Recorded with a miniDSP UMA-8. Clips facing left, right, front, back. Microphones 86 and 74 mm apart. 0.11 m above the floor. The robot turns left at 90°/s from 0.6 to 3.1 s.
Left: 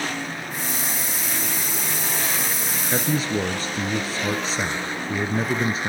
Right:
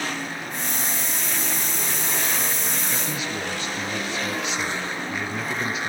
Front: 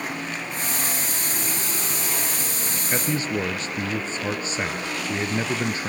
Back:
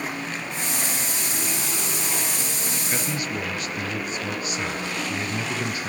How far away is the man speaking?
About 1.6 m.